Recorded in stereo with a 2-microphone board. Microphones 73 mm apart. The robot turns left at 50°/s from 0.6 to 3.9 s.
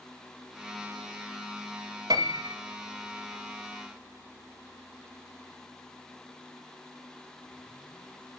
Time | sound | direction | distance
2.1 | a piano | 70° right (ahead or behind) | 0.8 m